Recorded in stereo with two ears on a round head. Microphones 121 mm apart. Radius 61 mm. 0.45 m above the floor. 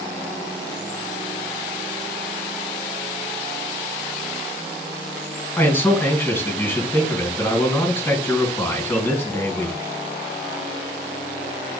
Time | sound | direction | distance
5.6 | a man speaking | 15° left (ahead or behind) | 4.5 m